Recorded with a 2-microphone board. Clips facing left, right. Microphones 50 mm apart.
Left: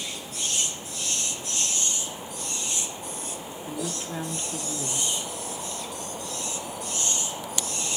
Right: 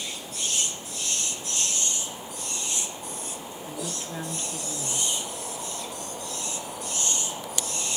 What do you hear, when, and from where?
3.7 s a woman speaking: 10° left (ahead or behind), 0.7 m